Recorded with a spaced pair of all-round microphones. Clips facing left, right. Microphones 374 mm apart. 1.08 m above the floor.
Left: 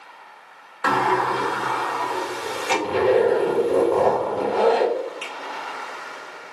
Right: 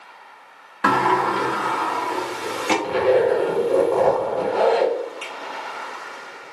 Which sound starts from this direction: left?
A zipper, at 2.8 s.